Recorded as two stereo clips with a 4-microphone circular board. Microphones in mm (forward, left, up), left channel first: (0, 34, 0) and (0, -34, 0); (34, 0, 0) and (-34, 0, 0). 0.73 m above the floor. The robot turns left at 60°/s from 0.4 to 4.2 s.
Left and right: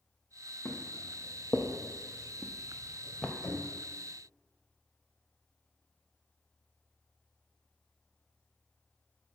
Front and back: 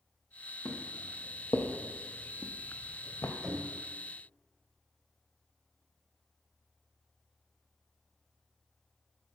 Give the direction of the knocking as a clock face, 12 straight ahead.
8 o'clock.